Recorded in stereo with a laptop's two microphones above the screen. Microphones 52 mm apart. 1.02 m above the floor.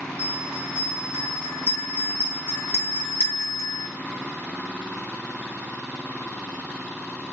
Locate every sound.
0.2 s a bell: 40° right (ahead or behind), 3 m